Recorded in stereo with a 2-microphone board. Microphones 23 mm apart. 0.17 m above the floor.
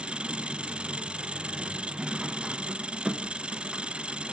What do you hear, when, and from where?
0.0 s an engine running: 50° right (ahead or behind), 0.8 m